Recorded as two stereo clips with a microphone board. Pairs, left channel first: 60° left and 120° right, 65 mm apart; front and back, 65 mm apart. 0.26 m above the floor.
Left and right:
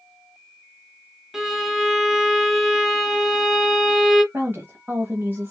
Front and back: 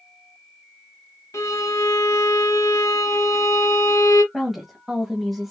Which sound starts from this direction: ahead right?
A violin, at 1.3 s.